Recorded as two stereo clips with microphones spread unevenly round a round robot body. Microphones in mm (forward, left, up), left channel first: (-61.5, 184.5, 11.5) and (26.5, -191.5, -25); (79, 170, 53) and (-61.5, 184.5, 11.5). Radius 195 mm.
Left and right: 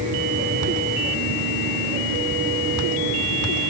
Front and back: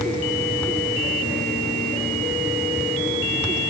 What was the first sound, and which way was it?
Only background noise.